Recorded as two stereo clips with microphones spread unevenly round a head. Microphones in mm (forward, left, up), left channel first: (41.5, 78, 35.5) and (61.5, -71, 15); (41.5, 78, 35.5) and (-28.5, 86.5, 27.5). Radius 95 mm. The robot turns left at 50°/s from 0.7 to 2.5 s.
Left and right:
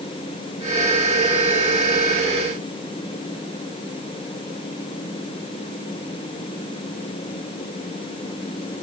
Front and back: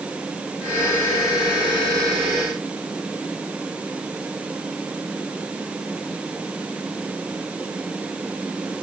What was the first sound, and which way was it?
Only background noise.